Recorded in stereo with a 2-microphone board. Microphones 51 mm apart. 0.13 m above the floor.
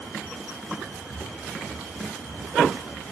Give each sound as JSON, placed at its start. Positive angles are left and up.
{"t": 1.1, "sound": "footsteps", "side_deg": -60, "distance_m": 1.6}